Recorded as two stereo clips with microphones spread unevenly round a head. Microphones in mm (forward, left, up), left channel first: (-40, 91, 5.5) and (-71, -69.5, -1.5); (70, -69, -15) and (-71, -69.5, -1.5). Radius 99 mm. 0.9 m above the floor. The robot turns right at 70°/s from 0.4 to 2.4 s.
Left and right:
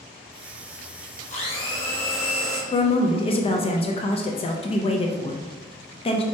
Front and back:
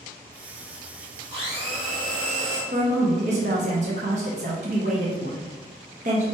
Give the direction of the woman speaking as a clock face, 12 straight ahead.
8 o'clock.